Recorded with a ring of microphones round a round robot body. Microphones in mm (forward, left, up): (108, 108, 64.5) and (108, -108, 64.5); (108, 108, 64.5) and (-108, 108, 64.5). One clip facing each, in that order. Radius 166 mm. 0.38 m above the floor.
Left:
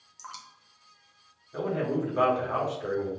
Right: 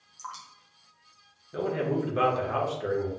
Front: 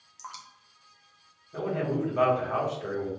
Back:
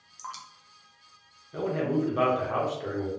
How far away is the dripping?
About 0.9 m.